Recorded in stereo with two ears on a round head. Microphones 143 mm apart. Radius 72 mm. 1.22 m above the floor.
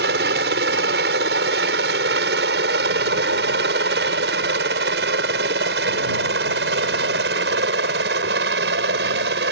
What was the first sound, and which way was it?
A helicopter, 70° right (ahead or behind).